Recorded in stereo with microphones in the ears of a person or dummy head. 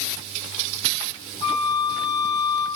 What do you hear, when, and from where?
1.4 s a flute: 35° left (ahead or behind), 3 m